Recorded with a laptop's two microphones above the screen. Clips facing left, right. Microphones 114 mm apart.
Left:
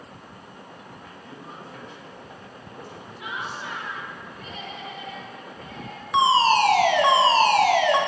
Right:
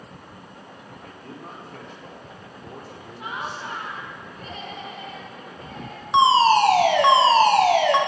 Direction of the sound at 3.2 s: 40° right (ahead or behind).